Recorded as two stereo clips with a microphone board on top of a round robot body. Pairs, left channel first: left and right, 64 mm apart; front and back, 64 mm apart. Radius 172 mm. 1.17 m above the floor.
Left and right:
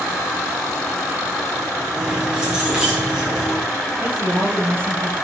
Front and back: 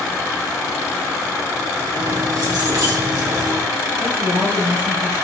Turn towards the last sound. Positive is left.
turn(degrees=-140)